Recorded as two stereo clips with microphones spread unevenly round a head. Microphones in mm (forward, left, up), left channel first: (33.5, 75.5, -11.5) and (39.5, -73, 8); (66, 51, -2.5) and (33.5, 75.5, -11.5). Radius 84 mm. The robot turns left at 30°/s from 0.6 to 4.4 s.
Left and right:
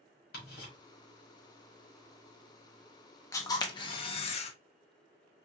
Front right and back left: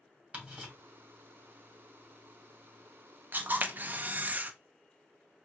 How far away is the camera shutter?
About 0.5 m.